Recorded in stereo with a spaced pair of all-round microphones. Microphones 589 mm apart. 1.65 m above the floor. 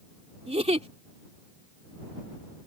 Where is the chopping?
I don't hear chopping.